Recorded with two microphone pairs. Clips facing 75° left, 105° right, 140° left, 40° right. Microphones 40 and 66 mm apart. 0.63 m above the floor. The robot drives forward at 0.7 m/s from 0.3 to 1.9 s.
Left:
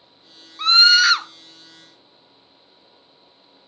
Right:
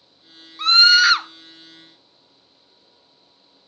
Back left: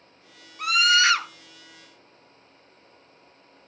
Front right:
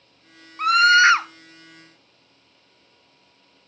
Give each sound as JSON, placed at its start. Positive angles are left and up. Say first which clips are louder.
{"t": 0.6, "sound": "a scream", "louder": "even, front right 7 dB", "azimuth_deg": -15, "distance_m": 0.8}